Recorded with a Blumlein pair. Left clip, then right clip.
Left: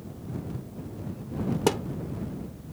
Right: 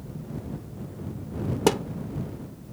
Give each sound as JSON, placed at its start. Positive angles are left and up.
{"t": 1.7, "sound": "a thud", "azimuth_deg": -10}